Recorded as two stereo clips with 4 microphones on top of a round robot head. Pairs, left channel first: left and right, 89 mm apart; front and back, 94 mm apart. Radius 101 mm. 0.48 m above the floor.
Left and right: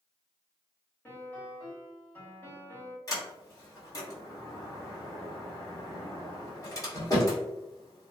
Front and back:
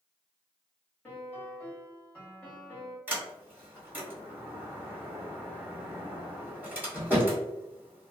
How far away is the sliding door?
About 1.8 m.